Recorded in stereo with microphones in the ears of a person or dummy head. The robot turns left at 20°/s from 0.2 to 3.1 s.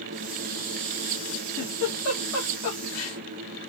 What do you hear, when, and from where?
1.6 s a giggle: 70° left (ahead or behind), 2 m; by 3.2 s 75° left (ahead or behind), 2 m